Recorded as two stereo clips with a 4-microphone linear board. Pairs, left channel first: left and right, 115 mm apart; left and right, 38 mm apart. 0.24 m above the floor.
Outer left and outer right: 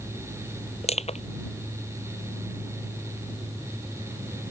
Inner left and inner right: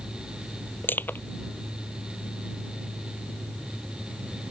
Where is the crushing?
65° left (ahead or behind).